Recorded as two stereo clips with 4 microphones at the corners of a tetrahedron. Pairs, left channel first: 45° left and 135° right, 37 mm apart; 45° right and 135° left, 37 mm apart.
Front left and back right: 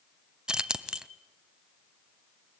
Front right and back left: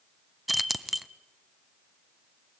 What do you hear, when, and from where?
0.5 s keys jangling: 145° right, 0.7 m